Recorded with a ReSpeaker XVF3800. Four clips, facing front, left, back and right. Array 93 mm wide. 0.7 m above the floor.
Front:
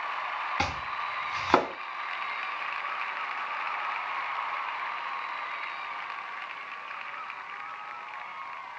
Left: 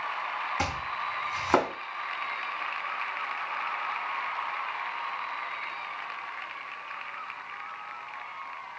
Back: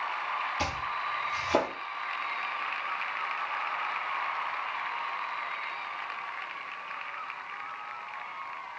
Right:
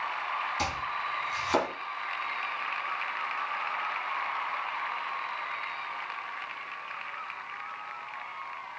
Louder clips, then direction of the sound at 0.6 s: Left 1 dB, front 1 dB; 30° left.